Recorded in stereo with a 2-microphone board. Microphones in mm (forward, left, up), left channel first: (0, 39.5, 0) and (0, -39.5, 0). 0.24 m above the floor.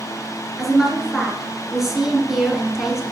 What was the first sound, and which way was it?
A woman speaking, 5° right (ahead or behind).